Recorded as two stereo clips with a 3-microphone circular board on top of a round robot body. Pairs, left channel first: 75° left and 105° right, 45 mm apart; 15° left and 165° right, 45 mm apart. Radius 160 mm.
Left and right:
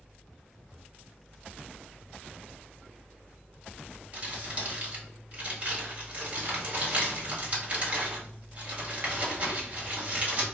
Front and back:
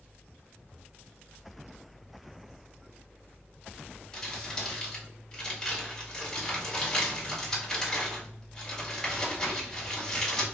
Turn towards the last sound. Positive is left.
turn(degrees=-60)